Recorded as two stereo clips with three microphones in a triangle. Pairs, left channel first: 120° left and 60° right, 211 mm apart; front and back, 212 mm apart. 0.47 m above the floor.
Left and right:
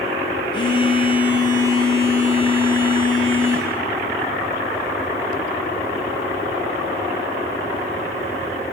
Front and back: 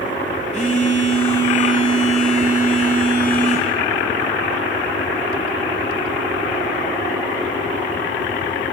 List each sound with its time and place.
0.5 s a phone buzzing: 55° left, 1.5 m